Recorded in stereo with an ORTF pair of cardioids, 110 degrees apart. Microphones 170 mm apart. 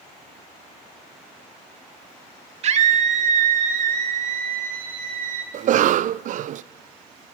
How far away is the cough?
About 0.5 m.